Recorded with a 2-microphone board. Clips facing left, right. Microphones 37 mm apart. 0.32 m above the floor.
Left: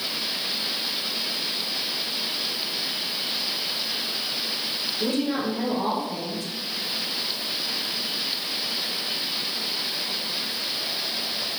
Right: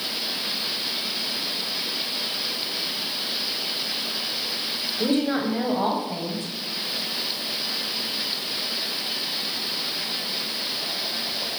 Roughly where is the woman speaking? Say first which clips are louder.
Right 3 dB; right.